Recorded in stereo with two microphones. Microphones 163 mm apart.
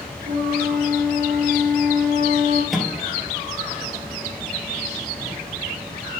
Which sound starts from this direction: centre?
A microwave, at 2.7 s.